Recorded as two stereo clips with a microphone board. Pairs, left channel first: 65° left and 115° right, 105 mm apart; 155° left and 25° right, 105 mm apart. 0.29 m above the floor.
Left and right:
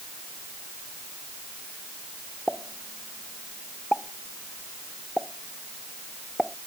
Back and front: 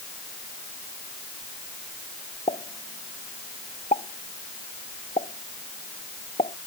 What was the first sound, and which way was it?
A pop, 150° left.